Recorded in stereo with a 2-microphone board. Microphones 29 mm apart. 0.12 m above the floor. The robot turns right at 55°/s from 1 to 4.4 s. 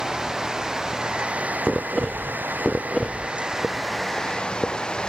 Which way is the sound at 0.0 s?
160° right.